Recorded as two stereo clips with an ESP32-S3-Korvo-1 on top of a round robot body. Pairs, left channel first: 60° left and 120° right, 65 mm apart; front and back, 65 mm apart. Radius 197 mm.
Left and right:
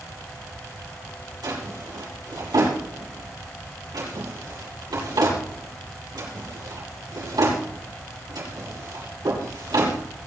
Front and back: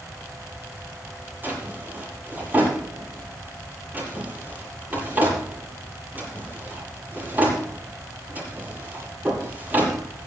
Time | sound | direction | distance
1.4 | a drawer | 115° right | 8 m